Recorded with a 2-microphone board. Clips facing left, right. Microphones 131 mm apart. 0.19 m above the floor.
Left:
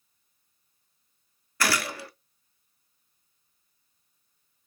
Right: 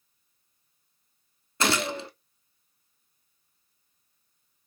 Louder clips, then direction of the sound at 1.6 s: Right 2 dB; 25° right (ahead or behind).